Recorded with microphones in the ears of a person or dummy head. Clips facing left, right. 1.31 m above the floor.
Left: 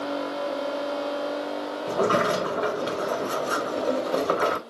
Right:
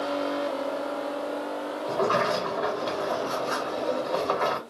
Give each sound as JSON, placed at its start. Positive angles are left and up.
{"t": 1.9, "sound": "a sliding door", "side_deg": 40, "distance_m": 0.6}